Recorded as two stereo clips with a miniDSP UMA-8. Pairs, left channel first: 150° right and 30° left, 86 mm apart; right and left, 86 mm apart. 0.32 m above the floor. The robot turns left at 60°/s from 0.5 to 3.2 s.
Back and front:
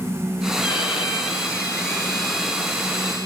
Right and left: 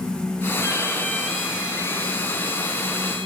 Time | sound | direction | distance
0.6 | a violin | 130° right | 2.5 m